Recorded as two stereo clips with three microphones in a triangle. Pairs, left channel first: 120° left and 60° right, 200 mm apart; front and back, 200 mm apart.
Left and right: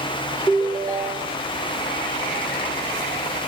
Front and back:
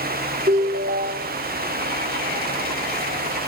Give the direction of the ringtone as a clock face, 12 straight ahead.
4 o'clock.